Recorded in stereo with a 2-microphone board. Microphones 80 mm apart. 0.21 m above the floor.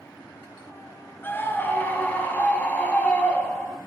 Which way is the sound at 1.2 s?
25° left (ahead or behind).